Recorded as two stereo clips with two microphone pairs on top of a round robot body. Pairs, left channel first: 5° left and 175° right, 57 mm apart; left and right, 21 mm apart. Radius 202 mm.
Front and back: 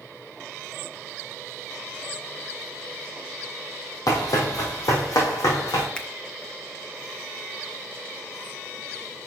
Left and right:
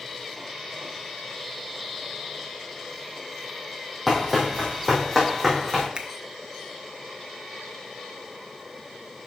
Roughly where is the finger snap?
Ahead right.